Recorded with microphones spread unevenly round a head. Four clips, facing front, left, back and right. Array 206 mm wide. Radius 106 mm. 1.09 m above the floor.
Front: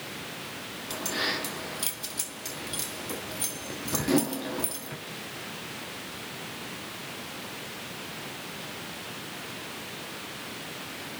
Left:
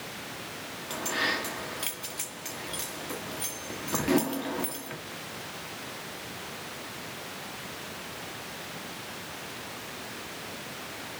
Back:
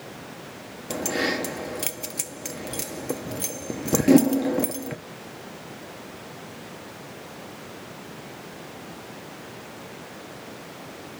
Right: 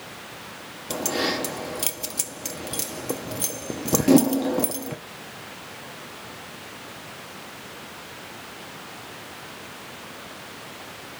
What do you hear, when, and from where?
0.9 s keys jangling: 140° right, 0.9 m